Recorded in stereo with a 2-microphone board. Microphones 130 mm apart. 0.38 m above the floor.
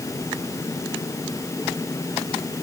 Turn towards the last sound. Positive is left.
No sound to turn to.